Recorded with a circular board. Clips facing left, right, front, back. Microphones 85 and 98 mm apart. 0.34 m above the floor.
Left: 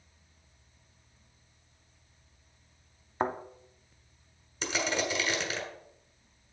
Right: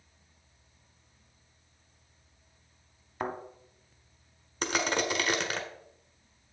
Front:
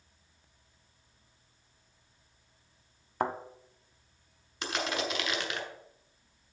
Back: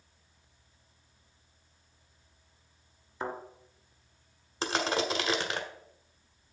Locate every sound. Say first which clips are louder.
3.2 s a thud: left 4 dB, front 5 dB; 30° left, 1.0 m
4.6 s crushing: right 2 dB, back 4 dB; 125° right, 1.3 m